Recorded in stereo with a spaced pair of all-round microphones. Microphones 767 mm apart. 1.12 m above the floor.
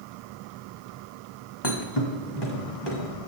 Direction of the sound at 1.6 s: 30° left (ahead or behind).